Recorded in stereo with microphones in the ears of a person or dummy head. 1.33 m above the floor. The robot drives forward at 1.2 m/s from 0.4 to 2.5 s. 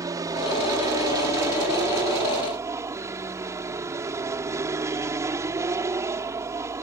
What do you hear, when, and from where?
0.0 s an aircraft: 20° right (ahead or behind); by 6.8 s 15° right (ahead or behind)